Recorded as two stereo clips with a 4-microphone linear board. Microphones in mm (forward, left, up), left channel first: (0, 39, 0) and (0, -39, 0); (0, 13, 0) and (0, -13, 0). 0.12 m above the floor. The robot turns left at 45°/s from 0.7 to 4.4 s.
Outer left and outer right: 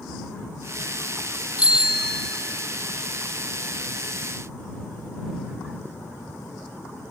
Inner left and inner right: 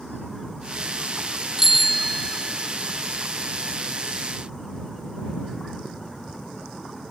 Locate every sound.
1.6 s a bicycle bell: 165° right; by 2.7 s 150° left